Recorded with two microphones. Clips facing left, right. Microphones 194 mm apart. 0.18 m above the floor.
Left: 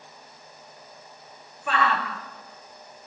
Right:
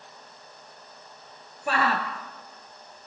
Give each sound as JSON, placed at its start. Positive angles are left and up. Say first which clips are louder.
{"t": 1.7, "sound": "a shout", "louder": "even", "side_deg": -35, "distance_m": 3.0}